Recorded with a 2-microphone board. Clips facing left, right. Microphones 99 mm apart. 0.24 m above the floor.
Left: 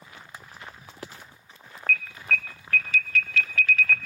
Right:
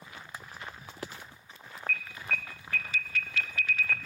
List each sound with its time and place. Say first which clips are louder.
1.9 s an alarm: left 7 dB; 15° right (ahead or behind), 0.9 m